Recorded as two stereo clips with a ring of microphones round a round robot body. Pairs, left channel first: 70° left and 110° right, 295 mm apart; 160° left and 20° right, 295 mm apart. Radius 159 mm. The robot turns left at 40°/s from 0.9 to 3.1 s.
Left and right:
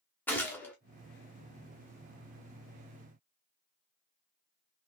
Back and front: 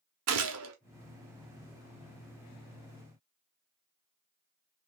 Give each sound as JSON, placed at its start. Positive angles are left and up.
{"t": 0.3, "sound": "a gunshot", "azimuth_deg": -15, "distance_m": 0.6}